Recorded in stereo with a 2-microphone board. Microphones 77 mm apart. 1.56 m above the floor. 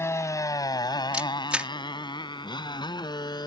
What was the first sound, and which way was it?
A motorcycle, 35° left (ahead or behind).